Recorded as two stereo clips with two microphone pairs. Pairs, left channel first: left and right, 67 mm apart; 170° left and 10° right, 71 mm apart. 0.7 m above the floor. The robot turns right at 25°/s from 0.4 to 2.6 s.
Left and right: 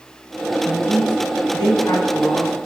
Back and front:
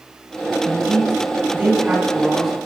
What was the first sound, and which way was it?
A man speaking, 30° left.